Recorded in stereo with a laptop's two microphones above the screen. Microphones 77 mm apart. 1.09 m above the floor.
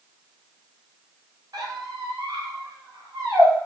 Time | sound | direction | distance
1.5 | a squeak | 65° right (ahead or behind) | 1.7 m